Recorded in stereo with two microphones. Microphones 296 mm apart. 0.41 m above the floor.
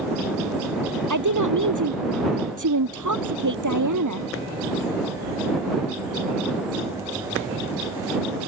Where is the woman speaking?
70° right (ahead or behind).